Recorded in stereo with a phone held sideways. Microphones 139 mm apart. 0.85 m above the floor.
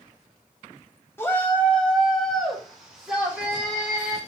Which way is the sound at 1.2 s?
15° left (ahead or behind).